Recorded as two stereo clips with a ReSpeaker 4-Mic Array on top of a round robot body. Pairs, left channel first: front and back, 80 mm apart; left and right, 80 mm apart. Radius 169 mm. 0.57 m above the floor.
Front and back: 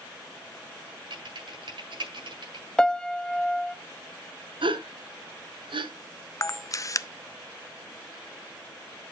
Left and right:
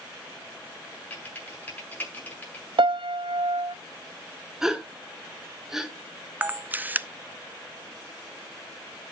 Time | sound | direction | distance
1.1 | typing on a keyboard | 160° left | 7 m
2.8 | a piano | 80° right | 0.5 m
4.6 | a gasp | 175° right | 1.8 m
6.4 | a camera shutter | 25° right | 0.9 m